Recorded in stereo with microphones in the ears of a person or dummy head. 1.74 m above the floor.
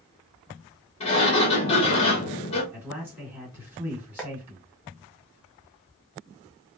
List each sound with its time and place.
1.0 s a sliding door: 30° left (ahead or behind), 1.4 m
2.7 s a man speaking: 10° right (ahead or behind), 1.9 m
4.2 s tapping: 5° left (ahead or behind), 0.9 m